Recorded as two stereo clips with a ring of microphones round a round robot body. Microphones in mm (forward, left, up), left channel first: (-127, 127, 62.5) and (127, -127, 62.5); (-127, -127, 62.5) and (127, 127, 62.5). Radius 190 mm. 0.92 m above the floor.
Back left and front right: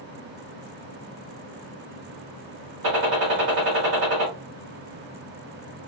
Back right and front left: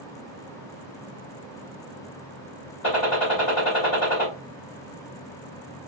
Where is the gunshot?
85° right, 2 m.